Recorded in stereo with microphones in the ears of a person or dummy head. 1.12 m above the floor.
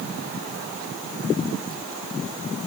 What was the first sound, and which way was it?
Only background noise.